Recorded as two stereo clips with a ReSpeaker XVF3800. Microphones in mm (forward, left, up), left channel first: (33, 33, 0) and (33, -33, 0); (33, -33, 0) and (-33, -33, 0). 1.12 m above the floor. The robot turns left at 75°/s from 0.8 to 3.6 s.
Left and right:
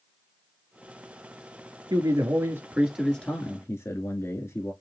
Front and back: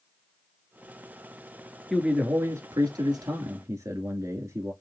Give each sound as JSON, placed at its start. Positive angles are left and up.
{"t": 1.9, "sound": "a man speaking", "azimuth_deg": -100, "distance_m": 2.0}